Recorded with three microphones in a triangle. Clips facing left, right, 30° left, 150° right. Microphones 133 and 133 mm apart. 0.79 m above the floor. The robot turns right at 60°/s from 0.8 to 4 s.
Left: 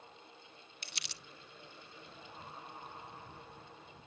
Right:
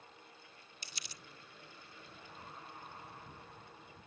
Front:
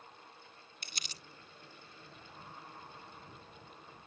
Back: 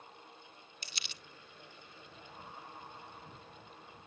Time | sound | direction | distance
0.8 | crumpling | 65° left | ?